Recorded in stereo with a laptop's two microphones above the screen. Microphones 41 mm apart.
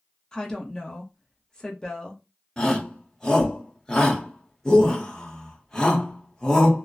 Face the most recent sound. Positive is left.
turn(degrees=15)  # may be behind; listen again after turning